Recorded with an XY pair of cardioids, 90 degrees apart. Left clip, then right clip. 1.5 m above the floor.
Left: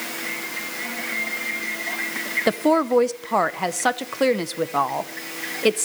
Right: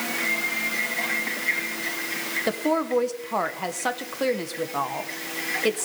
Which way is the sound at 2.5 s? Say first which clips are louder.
Left 6 dB; 50° left.